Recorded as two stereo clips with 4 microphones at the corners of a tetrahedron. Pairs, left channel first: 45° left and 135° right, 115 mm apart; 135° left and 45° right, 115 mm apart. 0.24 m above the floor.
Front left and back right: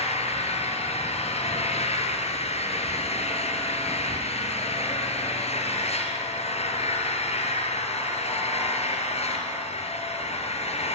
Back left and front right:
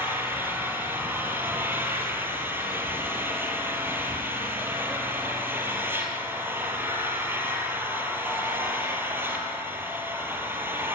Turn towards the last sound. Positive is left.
turn(degrees=25)